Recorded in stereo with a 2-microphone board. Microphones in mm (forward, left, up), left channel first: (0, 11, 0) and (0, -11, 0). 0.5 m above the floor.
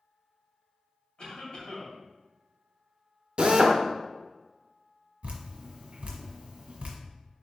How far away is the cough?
About 2.5 m.